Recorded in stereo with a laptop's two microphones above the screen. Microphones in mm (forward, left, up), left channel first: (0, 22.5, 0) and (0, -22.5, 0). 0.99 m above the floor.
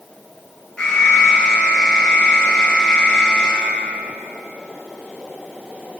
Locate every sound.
0.8 s an alarm: 20° left (ahead or behind), 9.5 m